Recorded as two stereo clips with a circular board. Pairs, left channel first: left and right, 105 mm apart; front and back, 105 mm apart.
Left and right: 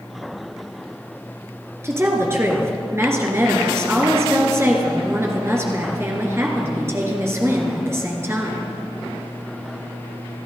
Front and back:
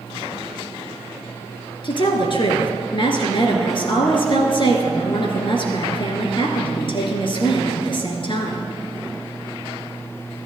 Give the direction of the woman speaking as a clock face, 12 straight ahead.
1 o'clock.